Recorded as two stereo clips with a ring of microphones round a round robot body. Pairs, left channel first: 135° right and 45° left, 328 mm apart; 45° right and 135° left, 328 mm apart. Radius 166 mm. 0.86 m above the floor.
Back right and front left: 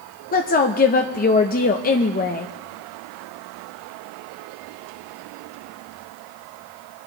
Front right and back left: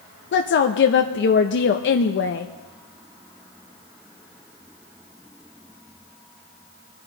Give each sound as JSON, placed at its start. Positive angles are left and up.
{"t": 0.3, "sound": "a woman speaking", "azimuth_deg": -85, "distance_m": 0.6}